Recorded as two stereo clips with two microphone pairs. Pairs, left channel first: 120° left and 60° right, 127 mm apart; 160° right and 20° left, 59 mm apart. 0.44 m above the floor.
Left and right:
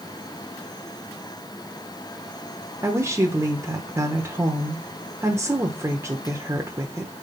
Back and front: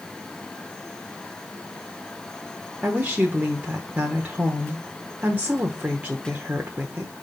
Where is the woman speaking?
10° right, 1.1 m.